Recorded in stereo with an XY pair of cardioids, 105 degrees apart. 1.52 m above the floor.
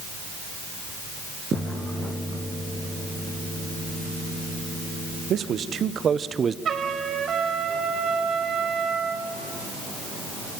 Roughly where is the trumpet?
Ahead right.